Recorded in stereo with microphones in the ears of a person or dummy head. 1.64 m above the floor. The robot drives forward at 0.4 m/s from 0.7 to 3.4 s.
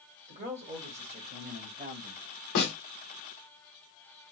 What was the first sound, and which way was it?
A man speaking, 35° right (ahead or behind).